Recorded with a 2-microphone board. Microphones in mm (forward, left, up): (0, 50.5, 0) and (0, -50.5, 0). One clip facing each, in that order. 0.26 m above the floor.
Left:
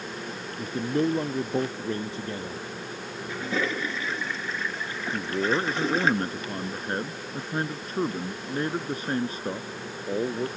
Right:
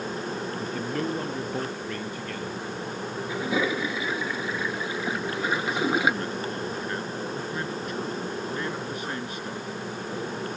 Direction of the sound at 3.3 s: 10° right (ahead or behind).